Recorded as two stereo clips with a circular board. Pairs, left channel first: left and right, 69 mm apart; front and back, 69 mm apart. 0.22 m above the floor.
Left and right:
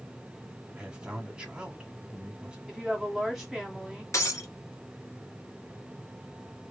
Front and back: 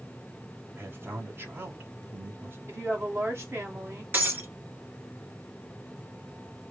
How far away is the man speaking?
About 1.4 m.